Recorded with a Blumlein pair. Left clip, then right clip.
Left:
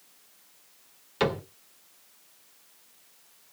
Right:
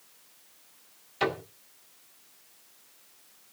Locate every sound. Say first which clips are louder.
1.2 s a cupboard door: left 2 dB; 35° left, 2 m